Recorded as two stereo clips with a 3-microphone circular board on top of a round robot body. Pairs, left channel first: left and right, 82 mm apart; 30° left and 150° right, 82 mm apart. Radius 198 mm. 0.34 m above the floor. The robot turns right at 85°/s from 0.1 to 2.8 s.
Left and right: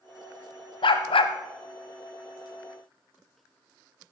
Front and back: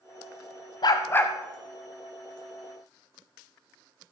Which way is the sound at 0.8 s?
65° left.